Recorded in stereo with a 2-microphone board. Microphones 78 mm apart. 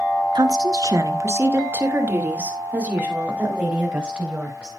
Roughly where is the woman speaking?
Right.